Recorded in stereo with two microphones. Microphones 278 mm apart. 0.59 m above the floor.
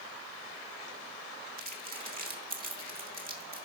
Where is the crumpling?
30° right (ahead or behind), 1.6 m.